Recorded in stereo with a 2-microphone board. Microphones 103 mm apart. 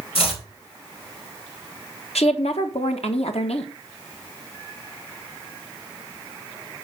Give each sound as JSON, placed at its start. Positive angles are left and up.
{"t": 0.1, "sound": "chopping", "side_deg": 60, "distance_m": 3.0}
{"t": 2.1, "sound": "a woman speaking", "side_deg": 80, "distance_m": 1.5}